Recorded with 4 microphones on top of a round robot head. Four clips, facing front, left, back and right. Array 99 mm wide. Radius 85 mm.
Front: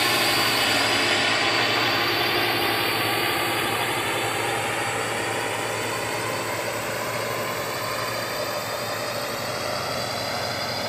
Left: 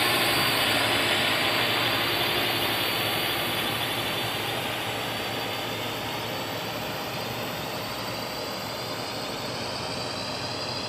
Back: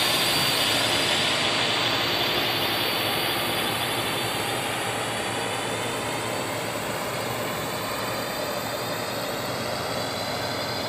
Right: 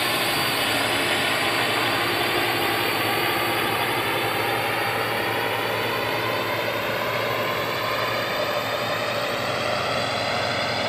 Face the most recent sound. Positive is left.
turn(degrees=-80)